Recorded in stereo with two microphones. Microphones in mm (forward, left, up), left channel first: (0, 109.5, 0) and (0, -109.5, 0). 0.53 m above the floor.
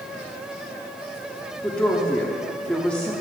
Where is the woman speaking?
5° left (ahead or behind), 0.7 m.